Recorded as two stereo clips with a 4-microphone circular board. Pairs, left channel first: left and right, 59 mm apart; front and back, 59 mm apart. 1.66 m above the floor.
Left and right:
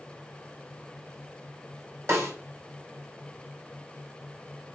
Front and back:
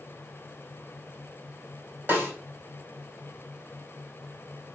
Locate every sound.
2.1 s a snare drum: 130° right, 4 m